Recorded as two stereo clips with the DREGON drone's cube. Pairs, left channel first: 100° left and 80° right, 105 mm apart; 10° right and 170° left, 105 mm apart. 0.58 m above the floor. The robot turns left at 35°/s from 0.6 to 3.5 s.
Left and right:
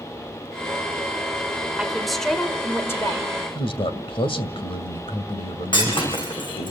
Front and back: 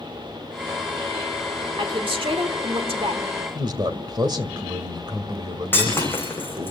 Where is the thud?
No thud in this recording.